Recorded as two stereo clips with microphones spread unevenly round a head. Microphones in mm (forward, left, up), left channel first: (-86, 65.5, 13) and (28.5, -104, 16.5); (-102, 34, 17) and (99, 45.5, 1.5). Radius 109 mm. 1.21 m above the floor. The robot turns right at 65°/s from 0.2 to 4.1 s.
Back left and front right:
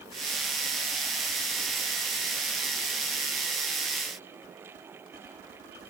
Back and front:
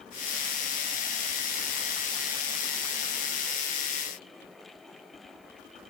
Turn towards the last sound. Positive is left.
No sound to turn to.